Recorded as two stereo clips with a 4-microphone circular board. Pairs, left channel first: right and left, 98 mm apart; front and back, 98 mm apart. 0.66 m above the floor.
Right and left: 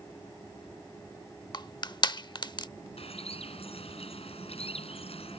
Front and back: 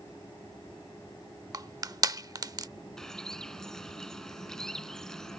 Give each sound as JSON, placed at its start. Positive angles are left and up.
{"t": 1.5, "sound": "crushing", "azimuth_deg": -130}
{"t": 3.0, "sound": "a bird", "azimuth_deg": -85}